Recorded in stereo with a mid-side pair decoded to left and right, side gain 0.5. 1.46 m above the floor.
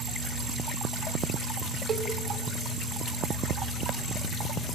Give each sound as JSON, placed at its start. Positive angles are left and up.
{"t": 1.9, "sound": "a cowbell", "azimuth_deg": -50, "distance_m": 2.0}